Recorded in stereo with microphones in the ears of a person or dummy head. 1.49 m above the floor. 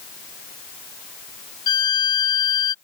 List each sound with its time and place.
1.7 s a violin: 25° left (ahead or behind)